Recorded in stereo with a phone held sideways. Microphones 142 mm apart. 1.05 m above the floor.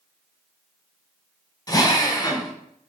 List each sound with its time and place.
1.7 s a drill: 25° left (ahead or behind), 0.9 m